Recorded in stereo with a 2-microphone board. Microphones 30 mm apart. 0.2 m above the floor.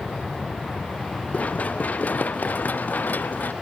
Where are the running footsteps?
55° left (ahead or behind); by 3.5 s 90° left.